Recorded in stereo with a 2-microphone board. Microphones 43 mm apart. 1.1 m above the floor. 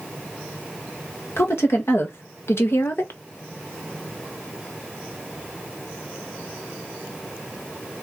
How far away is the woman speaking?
About 1.7 m.